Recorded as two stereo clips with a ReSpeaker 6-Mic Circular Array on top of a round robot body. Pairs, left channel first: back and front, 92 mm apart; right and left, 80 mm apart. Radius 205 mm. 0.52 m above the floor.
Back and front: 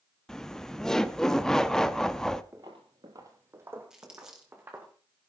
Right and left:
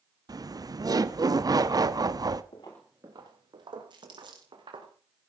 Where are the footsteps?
65° right, 0.6 m; by 4.9 s 70° left, 2.5 m.